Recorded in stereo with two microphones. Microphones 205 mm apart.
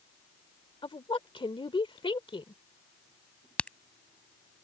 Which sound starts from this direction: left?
A woman speaking, at 0.8 s.